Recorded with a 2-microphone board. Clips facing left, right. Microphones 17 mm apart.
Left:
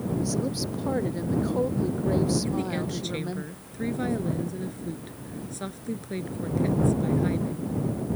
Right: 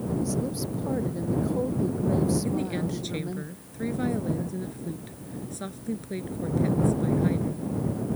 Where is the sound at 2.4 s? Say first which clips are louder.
Even; 5° left (ahead or behind).